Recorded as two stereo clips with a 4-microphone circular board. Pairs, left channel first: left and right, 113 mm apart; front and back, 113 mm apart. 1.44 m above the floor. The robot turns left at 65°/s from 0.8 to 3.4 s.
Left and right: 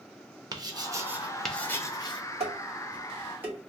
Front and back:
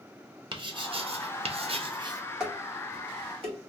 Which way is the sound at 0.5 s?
140° right.